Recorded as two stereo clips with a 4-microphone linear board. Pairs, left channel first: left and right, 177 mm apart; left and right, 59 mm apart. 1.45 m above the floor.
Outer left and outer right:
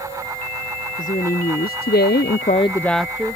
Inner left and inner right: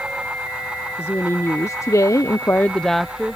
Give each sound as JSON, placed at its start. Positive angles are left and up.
{"t": 1.0, "sound": "a woman speaking", "side_deg": 50}